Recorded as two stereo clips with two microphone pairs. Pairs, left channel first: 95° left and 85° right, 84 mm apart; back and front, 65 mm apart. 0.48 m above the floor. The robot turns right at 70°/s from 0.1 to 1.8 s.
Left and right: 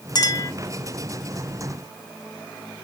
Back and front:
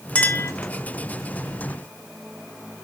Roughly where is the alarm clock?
I don't hear an alarm clock.